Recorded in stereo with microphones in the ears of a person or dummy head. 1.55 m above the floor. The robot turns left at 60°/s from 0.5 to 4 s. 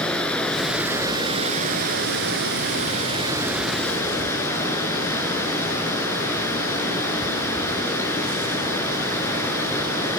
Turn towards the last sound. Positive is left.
turn(degrees=160)